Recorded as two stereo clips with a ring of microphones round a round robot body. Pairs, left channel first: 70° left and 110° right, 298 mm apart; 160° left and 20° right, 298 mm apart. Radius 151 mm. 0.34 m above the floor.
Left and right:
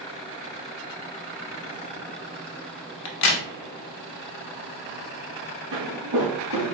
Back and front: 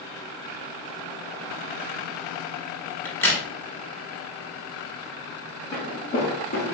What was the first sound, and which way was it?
A crack, 75° left.